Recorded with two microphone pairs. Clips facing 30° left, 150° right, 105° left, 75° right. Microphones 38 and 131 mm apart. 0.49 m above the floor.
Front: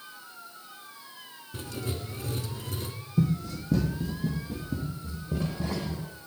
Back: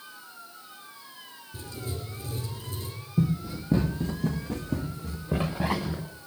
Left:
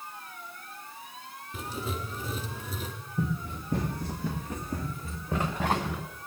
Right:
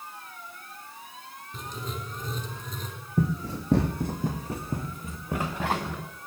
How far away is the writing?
About 2.0 m.